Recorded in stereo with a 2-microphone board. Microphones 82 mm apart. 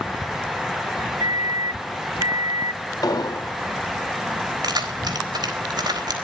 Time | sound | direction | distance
1.2 | a microwave | 55° right (ahead or behind) | 0.6 m
3.0 | an explosion | 50° left (ahead or behind) | 3 m
4.6 | keys jangling | 55° right (ahead or behind) | 3.5 m